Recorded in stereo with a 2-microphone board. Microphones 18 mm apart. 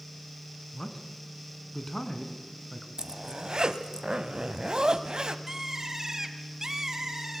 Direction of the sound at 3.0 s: 40° right (ahead or behind).